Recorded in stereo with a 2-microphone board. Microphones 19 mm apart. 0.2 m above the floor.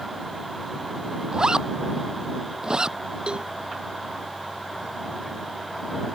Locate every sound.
1.3 s a zipper: 35° right (ahead or behind)
3.3 s a cowbell: 50° right (ahead or behind)